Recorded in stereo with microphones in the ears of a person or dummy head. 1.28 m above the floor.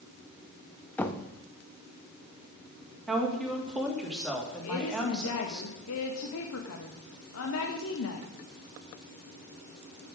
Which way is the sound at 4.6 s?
75° left (ahead or behind).